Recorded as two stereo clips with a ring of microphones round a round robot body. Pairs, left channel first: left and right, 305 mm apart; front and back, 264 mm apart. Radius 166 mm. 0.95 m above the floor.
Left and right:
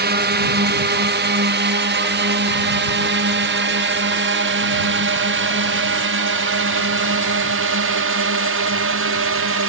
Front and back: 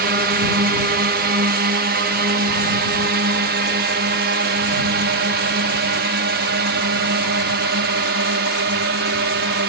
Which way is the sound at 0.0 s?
135° right.